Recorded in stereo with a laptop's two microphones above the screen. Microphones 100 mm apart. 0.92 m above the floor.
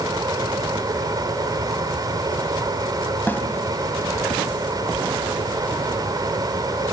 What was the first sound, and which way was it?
A fan, 40° right (ahead or behind).